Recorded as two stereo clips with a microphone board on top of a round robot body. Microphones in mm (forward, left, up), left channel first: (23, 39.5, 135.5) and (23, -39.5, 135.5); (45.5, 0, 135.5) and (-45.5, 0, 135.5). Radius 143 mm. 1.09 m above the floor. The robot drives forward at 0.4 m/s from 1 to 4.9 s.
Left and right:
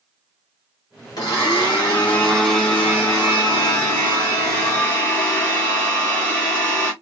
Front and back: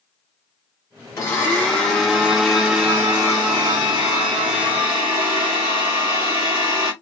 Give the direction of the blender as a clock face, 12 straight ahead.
10 o'clock.